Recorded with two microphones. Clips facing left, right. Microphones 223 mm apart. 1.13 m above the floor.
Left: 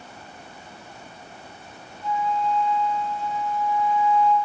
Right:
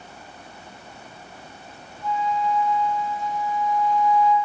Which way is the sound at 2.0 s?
30° left (ahead or behind).